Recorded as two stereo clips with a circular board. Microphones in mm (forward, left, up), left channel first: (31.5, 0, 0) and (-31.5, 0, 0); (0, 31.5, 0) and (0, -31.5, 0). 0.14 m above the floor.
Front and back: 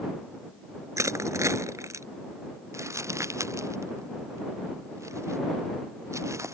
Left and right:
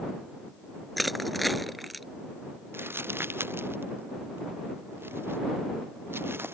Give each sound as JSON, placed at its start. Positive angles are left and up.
{"t": 1.0, "sound": "crushing", "azimuth_deg": 180}
{"t": 2.7, "sound": "crumpling", "azimuth_deg": -145}